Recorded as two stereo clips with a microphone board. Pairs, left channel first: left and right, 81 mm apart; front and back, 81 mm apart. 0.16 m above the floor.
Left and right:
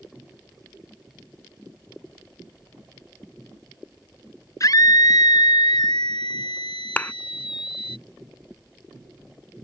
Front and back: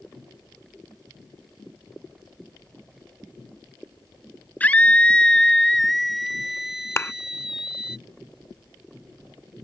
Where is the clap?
35° left.